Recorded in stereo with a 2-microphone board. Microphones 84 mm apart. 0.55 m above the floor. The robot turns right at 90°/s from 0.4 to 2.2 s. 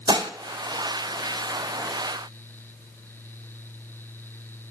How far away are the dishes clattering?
About 0.8 m.